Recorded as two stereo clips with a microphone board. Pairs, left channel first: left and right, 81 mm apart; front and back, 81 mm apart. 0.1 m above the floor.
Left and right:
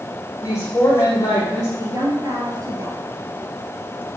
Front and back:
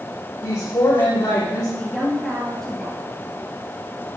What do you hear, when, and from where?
0.4 s a woman speaking: 40° left, 4.5 m
1.8 s a woman speaking: 85° right, 2.0 m